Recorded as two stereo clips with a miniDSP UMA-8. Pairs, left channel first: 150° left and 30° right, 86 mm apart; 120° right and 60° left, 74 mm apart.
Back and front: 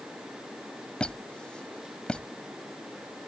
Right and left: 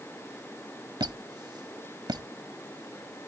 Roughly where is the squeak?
Left.